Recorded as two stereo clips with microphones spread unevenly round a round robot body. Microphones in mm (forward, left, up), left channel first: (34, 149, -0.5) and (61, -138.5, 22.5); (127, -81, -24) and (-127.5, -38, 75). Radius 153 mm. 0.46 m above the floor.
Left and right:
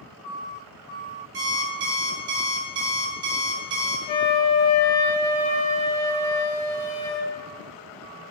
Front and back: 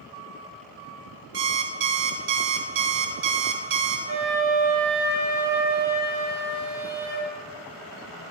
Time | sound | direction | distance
1.3 | an alarm clock | 140° right | 0.6 m
4.1 | a flute | 90° left | 1.3 m